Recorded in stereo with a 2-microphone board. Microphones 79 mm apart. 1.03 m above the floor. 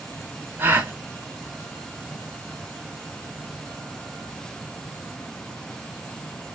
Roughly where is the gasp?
Right.